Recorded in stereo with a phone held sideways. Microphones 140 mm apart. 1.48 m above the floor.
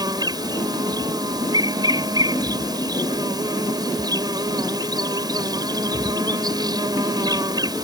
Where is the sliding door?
No sliding door in this recording.